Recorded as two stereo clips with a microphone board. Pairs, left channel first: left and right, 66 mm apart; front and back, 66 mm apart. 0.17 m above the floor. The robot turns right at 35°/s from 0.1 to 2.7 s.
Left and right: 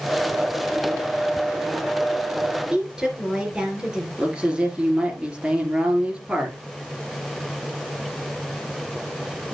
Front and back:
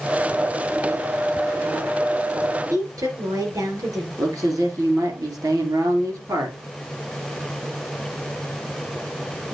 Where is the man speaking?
165° right, 3.5 m.